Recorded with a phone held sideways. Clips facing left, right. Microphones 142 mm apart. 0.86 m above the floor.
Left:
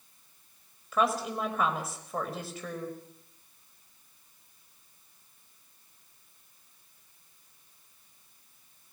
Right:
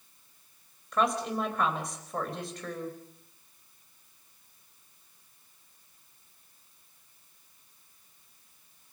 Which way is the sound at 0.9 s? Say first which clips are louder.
Even; 5° left (ahead or behind).